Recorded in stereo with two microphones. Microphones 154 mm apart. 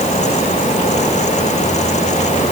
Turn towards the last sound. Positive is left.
No sound to turn to.